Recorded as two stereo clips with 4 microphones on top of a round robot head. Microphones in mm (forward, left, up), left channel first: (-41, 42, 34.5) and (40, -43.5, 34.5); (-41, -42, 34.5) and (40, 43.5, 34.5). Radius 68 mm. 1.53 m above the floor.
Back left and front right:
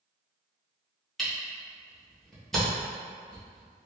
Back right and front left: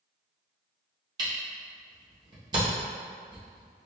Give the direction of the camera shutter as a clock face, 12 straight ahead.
10 o'clock.